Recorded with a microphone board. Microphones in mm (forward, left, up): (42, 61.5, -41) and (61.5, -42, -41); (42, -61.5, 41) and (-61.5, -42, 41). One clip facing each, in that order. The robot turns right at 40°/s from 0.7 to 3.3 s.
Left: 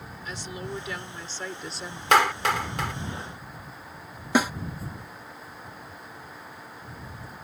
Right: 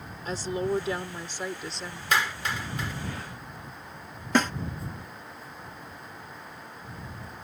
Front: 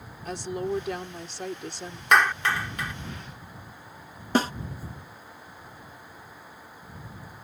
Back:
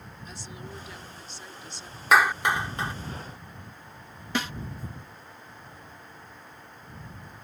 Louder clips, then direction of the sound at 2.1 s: Left 7 dB, back 1 dB; 85° left.